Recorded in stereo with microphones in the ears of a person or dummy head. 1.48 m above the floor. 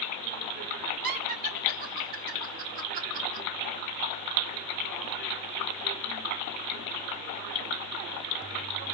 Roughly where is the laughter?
Right.